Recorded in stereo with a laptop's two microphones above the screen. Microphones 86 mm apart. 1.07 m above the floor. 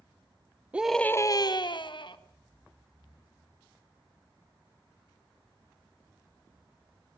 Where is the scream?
15° right (ahead or behind), 0.7 m; by 2.2 s 60° left (ahead or behind), 1.8 m.